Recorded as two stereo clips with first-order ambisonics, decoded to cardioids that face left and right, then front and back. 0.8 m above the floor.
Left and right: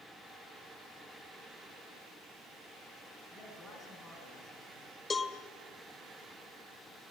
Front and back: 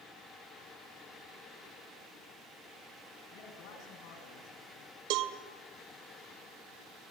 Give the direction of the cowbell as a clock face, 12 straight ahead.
6 o'clock.